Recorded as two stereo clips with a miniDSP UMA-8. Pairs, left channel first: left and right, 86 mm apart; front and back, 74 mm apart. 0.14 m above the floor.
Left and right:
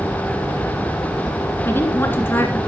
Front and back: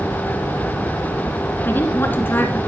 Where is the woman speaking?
40° left, 1.6 m.